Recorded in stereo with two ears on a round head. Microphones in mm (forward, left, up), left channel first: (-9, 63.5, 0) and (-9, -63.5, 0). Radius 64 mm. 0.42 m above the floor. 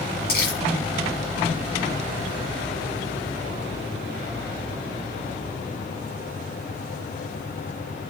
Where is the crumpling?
80° left, 4.5 m.